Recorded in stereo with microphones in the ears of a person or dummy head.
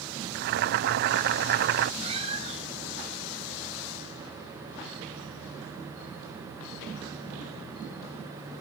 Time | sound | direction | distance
0.3 | boiling | 60° right (ahead or behind) | ?
2.0 | a cat meowing | 40° right (ahead or behind) | ?